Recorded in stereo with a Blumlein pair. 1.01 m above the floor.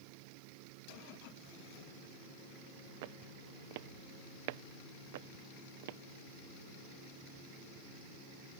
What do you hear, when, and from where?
3.0 s footsteps: 50° right; by 6.0 s 55° right